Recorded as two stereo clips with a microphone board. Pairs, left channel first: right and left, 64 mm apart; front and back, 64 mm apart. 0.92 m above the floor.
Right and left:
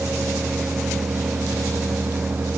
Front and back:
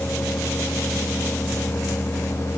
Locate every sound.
Only background noise.